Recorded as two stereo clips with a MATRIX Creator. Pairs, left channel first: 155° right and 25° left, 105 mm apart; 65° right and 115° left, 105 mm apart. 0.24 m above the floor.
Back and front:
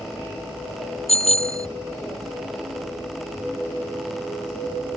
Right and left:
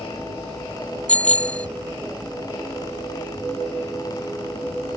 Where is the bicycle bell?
145° right.